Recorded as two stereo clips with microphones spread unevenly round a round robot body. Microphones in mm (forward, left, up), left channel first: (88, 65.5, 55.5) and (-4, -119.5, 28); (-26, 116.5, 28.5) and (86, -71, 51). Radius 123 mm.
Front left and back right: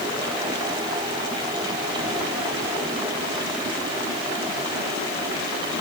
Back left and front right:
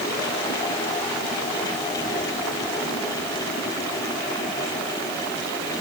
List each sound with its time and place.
Only background noise.